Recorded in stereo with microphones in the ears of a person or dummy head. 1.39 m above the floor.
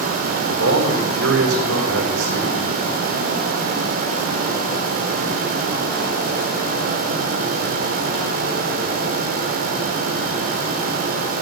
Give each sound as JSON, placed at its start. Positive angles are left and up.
{"t": 0.5, "sound": "a man speaking", "side_deg": -80, "distance_m": 3.5}